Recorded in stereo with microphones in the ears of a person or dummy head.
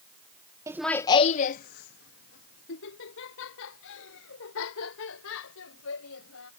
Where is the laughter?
15° right (ahead or behind); by 6.5 s 85° left.